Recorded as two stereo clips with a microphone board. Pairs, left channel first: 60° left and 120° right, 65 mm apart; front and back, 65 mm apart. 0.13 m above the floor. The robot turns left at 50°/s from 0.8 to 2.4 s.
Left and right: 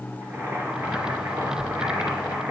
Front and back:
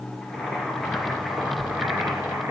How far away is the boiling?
About 2 m.